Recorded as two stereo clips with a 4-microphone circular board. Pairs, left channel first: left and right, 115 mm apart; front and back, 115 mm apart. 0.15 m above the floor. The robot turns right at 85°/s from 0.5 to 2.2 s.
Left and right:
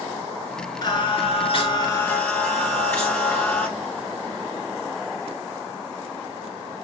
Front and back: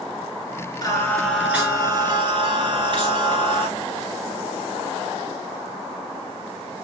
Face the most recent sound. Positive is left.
turn(degrees=165)